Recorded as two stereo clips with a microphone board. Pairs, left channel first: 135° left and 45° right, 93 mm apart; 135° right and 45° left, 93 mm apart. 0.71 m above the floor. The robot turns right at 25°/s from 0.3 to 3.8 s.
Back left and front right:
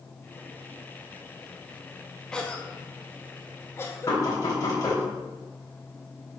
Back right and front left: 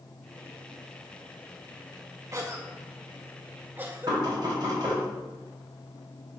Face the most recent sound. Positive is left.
turn(degrees=85)